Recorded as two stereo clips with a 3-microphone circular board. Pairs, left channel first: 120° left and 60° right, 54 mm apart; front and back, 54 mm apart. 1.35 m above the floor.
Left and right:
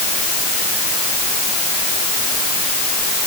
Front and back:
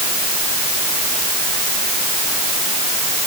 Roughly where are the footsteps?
No footsteps in this recording.